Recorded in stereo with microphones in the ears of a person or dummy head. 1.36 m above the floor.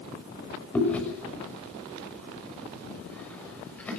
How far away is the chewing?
About 6.5 m.